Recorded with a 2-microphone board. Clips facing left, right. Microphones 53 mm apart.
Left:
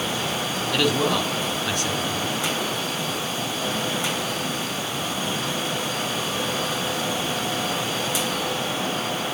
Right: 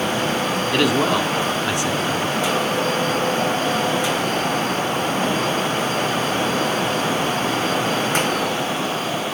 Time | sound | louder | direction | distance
0.7 | a man speaking | right 3 dB | 20° right (ahead or behind) | 3 m